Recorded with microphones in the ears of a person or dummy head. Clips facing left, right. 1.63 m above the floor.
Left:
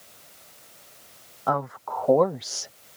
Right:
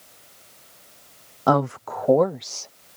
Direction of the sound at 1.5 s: 55° right (ahead or behind).